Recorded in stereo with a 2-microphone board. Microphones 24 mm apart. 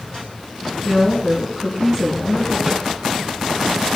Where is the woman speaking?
30° left (ahead or behind), 4 m.